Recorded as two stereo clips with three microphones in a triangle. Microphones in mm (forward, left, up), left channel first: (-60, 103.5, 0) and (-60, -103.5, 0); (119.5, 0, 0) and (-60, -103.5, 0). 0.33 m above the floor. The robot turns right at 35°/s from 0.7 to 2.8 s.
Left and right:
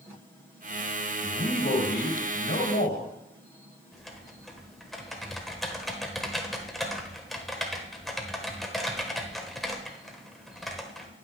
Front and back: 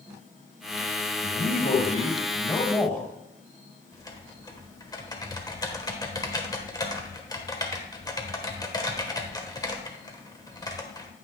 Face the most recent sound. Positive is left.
turn(degrees=5)